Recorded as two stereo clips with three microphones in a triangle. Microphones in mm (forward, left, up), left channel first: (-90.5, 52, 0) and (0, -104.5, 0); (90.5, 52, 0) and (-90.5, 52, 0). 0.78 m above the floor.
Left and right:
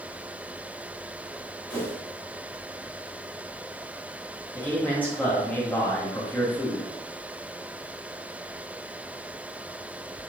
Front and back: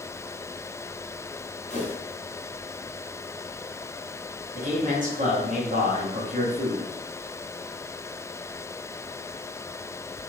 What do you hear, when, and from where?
1.7 s a whoosh: 40° left, 1.0 m
4.5 s a man speaking: 160° right, 1.2 m